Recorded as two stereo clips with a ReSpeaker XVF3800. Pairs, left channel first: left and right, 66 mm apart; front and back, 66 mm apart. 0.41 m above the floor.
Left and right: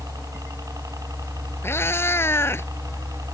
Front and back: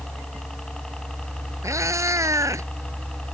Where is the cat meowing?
140° left.